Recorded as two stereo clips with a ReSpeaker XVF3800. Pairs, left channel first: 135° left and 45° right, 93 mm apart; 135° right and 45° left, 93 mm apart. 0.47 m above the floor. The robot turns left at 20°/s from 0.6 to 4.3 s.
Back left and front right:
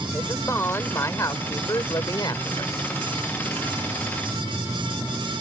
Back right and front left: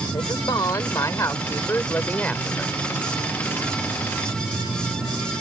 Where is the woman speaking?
170° right; by 2.8 s 145° left.